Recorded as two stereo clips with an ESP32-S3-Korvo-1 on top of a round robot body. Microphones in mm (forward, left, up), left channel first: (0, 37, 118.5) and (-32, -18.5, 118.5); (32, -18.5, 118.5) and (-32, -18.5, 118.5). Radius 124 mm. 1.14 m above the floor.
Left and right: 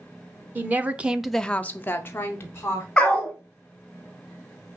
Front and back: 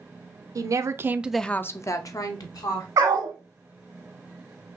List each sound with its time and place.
0.6 s a woman speaking: straight behind, 0.8 m; by 2.9 s 5° left, 1.3 m
3.0 s a dog barking: 135° left, 0.8 m